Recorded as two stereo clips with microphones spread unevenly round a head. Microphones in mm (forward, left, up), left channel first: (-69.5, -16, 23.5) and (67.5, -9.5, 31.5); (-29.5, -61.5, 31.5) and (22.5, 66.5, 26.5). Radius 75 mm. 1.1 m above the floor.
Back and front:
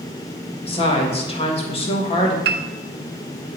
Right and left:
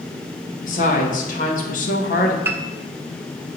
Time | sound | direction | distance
0.7 | a woman speaking | 135° right | 1.7 m
2.5 | a piano | 5° right | 0.5 m